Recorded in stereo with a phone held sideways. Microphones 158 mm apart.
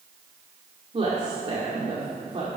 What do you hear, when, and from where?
0.9 s a woman speaking: 40° right (ahead or behind), 2 m